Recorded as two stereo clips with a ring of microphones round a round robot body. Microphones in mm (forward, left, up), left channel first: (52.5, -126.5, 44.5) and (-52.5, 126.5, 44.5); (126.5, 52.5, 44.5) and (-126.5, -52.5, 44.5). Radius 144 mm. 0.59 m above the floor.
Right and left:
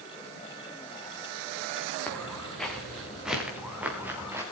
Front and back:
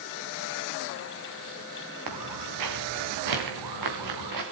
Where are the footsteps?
155° right, 5 m; by 4.4 s 165° right, 5 m.